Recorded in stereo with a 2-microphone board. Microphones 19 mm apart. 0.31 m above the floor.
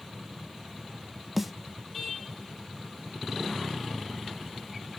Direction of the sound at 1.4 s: 5° right (ahead or behind).